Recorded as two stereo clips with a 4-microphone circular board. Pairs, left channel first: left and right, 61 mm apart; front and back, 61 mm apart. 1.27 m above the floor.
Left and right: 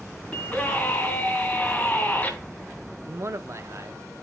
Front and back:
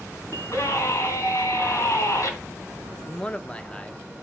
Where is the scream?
25° left, 3.5 m.